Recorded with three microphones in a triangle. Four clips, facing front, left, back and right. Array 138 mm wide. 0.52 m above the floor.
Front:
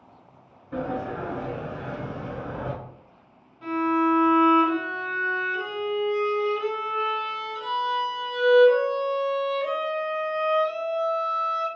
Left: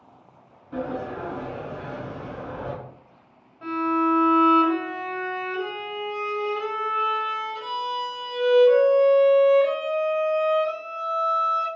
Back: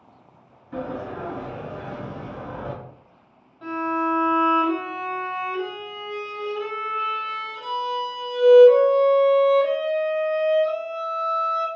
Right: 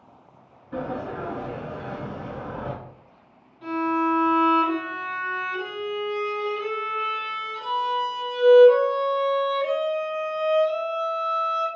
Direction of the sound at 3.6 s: 130° left.